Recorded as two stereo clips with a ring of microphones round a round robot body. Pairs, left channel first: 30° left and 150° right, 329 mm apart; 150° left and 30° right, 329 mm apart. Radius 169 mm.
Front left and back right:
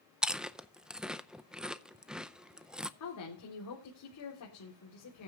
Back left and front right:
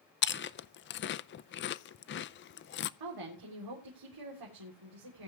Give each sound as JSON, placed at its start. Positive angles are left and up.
{"t": 0.2, "sound": "chewing", "azimuth_deg": 125, "distance_m": 0.5}
{"t": 3.0, "sound": "a woman speaking", "azimuth_deg": -10, "distance_m": 3.5}